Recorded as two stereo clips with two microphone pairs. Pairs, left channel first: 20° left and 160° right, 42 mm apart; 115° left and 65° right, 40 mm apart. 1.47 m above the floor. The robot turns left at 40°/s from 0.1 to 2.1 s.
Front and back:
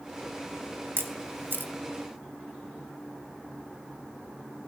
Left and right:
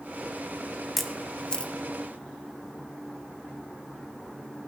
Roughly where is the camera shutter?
Behind right.